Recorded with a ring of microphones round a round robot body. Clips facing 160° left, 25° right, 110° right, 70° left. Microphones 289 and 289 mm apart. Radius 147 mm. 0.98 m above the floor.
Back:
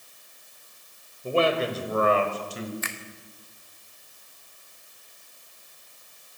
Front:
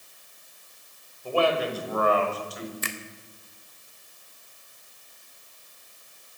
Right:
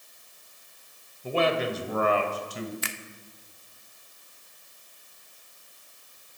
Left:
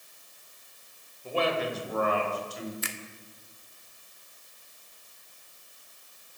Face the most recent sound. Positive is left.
turn(degrees=-80)